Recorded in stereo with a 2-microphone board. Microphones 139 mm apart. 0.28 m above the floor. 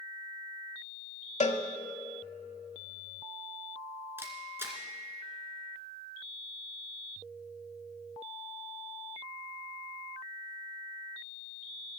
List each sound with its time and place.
1.4 s a cowbell: 55° left (ahead or behind), 0.9 m
4.2 s a camera shutter: 15° right (ahead or behind), 2.5 m